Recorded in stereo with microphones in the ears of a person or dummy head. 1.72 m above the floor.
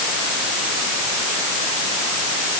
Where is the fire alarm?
No fire alarm in this recording.